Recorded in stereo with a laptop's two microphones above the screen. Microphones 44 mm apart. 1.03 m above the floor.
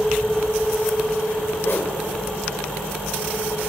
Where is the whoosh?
55° left (ahead or behind), 1.8 m.